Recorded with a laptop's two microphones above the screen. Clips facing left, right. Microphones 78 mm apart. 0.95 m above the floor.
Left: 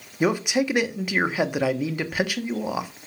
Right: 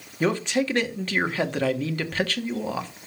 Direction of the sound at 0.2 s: 15° left (ahead or behind).